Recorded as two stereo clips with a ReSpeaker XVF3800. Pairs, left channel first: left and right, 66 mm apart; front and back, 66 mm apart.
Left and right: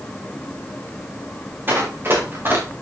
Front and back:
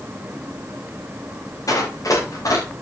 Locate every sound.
1.7 s running footsteps: 35° right, 6 m